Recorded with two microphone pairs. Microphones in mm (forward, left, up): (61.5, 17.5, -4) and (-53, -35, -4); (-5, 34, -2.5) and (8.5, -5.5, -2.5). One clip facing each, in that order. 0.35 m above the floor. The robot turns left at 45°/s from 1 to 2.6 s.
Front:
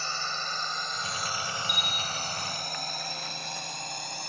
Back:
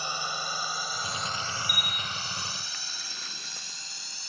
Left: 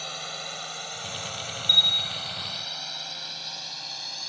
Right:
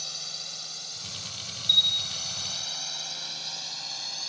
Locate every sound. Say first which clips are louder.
0.0 s a drone: back 1 dB, left 5 dB; 135° left; by 4.3 s 20° left
1.7 s a bell: front 2 dB, left 2 dB; 170° left; by 2.3 s 145° left